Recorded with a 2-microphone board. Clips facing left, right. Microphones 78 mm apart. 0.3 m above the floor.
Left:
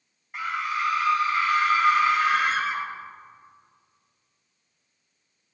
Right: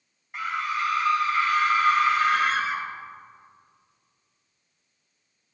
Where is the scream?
Centre (ahead or behind), 1.2 m.